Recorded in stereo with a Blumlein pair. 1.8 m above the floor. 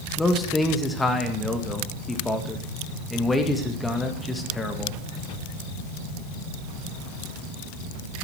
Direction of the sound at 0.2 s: 5° left.